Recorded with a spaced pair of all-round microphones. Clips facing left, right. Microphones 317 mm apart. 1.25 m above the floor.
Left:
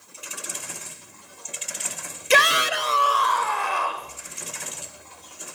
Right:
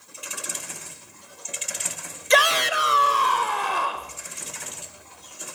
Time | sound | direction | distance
2.3 | a shout | 35° left (ahead or behind) | 0.6 m